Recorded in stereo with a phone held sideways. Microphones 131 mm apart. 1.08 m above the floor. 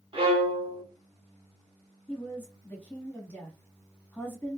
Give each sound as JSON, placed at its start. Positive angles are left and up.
{"t": 0.1, "sound": "a violin", "side_deg": -45, "distance_m": 1.8}
{"t": 2.1, "sound": "a woman speaking", "side_deg": 15, "distance_m": 1.7}